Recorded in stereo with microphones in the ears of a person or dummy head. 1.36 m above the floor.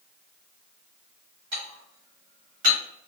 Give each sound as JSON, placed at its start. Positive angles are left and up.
{"t": 1.5, "sound": "dishes clattering", "side_deg": -60, "distance_m": 1.5}